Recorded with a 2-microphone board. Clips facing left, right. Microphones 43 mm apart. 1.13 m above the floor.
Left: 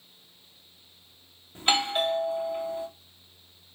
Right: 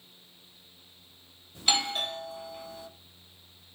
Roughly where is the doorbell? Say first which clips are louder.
Left 4 dB; left.